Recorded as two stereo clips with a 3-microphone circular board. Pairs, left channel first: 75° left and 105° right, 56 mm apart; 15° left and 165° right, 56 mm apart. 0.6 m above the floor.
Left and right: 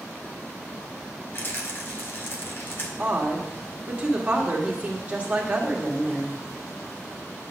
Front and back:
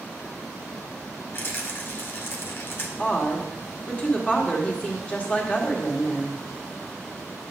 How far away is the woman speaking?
About 1.7 m.